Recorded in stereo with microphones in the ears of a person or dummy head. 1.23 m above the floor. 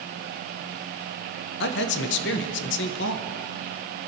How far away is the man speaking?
About 1.0 m.